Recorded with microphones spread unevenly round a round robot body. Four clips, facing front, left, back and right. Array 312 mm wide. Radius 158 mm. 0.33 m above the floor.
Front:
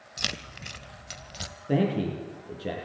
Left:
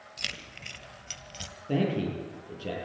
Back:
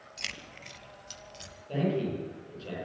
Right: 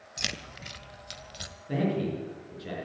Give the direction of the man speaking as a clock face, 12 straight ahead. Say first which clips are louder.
Even, front 4 dB; 11 o'clock.